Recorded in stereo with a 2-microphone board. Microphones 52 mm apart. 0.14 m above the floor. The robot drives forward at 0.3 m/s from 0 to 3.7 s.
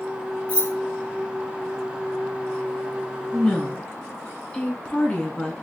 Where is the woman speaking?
20° left (ahead or behind), 1.2 m; by 5.5 s 15° left (ahead or behind), 1.3 m.